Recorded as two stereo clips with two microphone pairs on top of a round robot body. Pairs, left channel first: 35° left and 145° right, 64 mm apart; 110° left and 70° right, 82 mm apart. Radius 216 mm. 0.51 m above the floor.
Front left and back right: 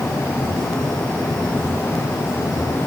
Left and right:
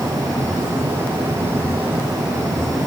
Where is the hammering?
I don't hear hammering.